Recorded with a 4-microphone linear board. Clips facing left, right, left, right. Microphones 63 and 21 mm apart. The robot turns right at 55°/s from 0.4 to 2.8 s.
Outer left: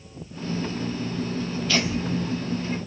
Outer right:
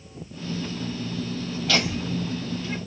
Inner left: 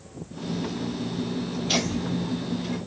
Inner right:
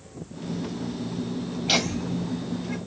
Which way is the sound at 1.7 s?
80° right.